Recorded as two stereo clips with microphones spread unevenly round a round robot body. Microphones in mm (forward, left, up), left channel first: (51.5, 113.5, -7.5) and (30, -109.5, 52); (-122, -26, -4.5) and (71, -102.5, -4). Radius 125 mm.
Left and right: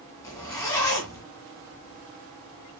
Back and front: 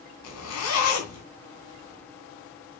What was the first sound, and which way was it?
A zipper, 165° left.